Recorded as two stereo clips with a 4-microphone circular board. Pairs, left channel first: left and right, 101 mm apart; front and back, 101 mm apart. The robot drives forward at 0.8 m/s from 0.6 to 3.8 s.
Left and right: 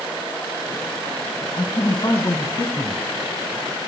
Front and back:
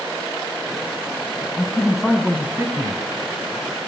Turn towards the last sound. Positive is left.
turn(degrees=145)